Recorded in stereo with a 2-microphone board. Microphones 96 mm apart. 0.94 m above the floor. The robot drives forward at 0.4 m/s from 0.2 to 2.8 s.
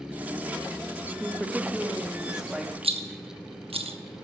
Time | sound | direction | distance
1.2 | a woman speaking | 10° right (ahead or behind) | 1.2 m
2.8 | a rattle | 80° right | 0.7 m